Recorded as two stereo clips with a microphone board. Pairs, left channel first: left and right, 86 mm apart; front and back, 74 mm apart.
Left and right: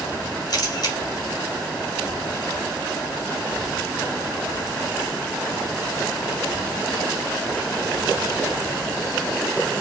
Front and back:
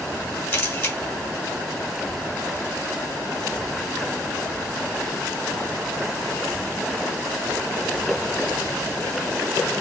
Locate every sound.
0.5 s a camera shutter: 50° left, 1.9 m